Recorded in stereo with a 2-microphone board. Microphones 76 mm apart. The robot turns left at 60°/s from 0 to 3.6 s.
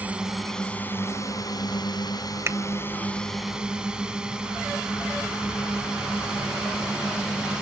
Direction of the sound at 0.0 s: 155° right.